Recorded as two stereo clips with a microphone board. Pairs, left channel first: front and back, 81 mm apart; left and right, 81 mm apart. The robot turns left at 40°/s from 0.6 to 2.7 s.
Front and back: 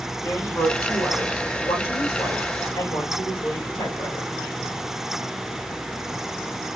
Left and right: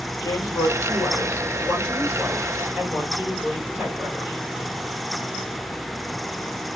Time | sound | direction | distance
0.2 | a woman speaking | 70° left | 2 m